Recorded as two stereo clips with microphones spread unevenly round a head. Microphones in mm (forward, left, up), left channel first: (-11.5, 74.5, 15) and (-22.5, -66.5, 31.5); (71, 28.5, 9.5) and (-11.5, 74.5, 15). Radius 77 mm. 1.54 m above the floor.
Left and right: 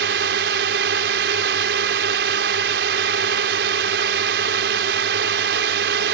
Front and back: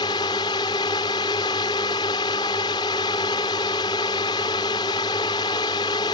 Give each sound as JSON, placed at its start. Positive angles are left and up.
{"t": 0.0, "sound": "a drone", "azimuth_deg": -95}